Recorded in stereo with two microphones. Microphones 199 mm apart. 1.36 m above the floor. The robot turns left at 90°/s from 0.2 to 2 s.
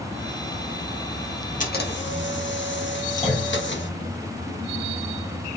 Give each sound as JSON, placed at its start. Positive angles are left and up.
{"t": 1.6, "sound": "a camera shutter", "azimuth_deg": 135, "distance_m": 0.7}
{"t": 3.2, "sound": "a clunk", "side_deg": 35, "distance_m": 0.9}